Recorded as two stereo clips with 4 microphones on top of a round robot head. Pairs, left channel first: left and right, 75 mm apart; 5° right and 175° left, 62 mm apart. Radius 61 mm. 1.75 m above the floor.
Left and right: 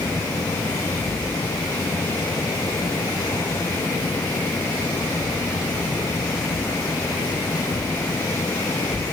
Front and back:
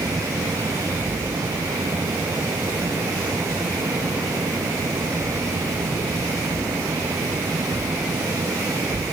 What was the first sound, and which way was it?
Only background noise.